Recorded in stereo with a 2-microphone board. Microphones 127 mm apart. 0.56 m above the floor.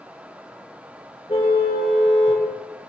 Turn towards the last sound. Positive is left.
turn(degrees=50)  # may be behind; listen again after turning